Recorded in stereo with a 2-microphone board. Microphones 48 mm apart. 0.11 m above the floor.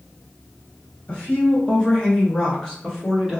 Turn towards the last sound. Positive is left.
turn(degrees=-5)  # may be behind; listen again after turning